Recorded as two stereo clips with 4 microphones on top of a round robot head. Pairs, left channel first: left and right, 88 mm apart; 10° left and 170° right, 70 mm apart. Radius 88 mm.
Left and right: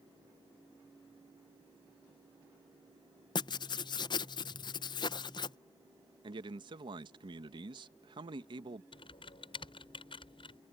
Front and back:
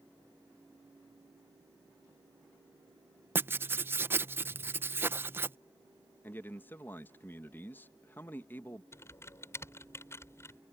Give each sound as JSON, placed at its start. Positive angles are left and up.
{"t": 3.4, "sound": "writing", "azimuth_deg": 135}
{"t": 6.2, "sound": "a man speaking", "azimuth_deg": -55}
{"t": 8.9, "sound": "typing on a keyboard", "azimuth_deg": 65}